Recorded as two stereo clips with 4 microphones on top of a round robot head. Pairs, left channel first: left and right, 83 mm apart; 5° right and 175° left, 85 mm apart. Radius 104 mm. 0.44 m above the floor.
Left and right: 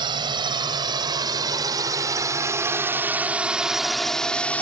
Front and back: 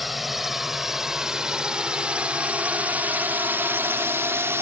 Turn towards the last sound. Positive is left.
turn(degrees=145)